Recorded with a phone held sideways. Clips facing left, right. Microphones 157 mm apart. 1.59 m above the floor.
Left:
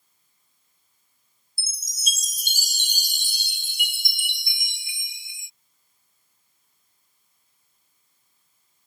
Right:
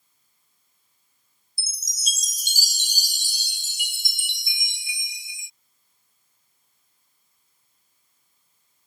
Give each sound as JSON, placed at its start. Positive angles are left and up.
{"t": 1.6, "sound": "a chime", "side_deg": 60}